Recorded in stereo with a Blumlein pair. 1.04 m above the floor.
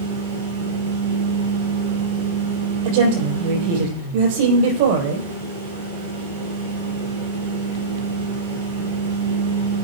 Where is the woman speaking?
50° right, 4.5 m.